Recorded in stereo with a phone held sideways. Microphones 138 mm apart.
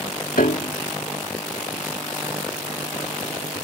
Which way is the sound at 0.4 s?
85° left.